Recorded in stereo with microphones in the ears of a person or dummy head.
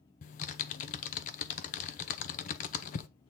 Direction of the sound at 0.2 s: 45° left (ahead or behind).